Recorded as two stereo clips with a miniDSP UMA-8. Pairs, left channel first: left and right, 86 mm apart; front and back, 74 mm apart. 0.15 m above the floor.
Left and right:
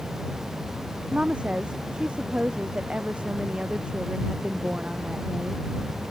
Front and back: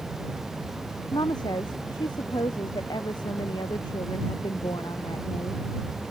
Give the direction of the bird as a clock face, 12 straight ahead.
No bird in this recording.